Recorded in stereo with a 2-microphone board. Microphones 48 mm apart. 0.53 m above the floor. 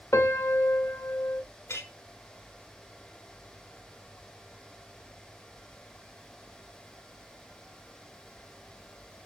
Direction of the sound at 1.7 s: 70° left (ahead or behind).